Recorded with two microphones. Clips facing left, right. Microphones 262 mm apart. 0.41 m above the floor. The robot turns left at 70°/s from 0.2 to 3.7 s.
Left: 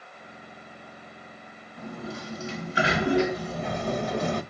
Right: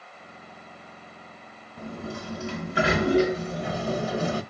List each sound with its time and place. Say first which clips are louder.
1.8 s a sliding door: right 1 dB; 35° right, 1.0 m; by 4.4 s 170° right, 1.0 m